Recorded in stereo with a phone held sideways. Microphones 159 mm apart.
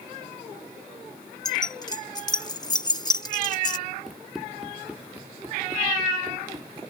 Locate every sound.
1.4 s keys jangling: 25° left (ahead or behind)
4.1 s running footsteps: centre (ahead or behind); by 6.8 s 25° right (ahead or behind)